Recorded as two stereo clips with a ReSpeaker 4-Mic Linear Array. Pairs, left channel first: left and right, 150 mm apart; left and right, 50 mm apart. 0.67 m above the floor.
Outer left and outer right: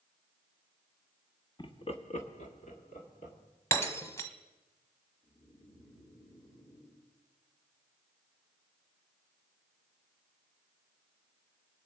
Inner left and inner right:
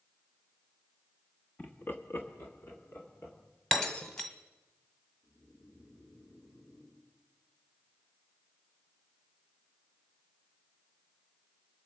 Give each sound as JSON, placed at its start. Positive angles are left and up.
{"t": 1.6, "sound": "laughter", "side_deg": 30, "distance_m": 0.9}
{"t": 3.7, "sound": "breaking glass", "side_deg": 20, "distance_m": 1.3}
{"t": 5.2, "sound": "snoring", "side_deg": 70, "distance_m": 6.5}